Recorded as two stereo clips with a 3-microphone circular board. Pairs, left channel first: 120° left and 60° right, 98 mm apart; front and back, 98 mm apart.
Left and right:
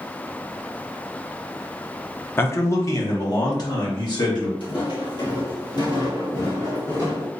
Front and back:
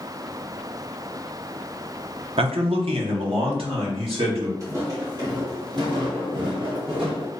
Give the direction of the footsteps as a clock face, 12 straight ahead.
8 o'clock.